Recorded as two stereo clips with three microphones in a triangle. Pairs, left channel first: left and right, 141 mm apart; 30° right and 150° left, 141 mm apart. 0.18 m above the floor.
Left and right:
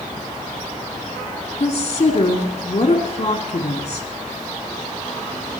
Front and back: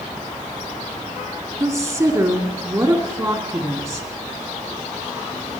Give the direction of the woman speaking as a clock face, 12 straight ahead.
9 o'clock.